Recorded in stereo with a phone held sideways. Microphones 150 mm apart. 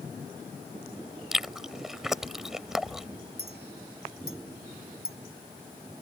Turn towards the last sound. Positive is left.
turn(degrees=85)